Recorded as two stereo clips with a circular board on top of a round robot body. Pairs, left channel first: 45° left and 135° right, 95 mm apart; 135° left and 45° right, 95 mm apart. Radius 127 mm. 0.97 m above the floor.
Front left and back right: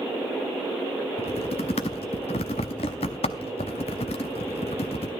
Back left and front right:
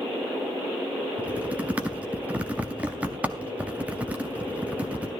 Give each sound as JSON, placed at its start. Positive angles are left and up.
{"t": 1.2, "sound": "typing on a keyboard", "azimuth_deg": 30, "distance_m": 0.5}